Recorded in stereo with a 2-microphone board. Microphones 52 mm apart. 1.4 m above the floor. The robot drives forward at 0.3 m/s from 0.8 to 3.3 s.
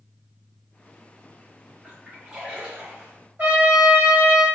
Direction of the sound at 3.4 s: 35° right (ahead or behind).